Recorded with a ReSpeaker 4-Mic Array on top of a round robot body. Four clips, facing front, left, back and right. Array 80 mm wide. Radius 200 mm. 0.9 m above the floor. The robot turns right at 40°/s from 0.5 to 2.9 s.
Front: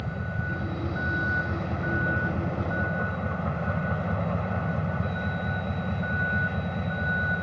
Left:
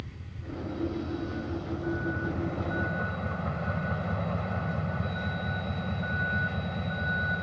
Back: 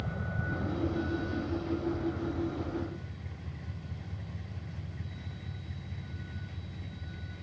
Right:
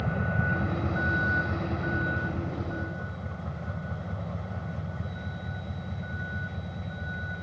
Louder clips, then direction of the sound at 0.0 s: Right 15 dB, front 4 dB; 75° right.